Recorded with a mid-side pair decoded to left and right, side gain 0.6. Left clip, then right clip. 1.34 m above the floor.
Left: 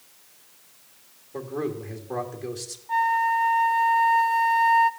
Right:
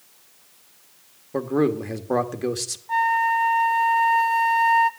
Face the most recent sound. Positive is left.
turn(degrees=-15)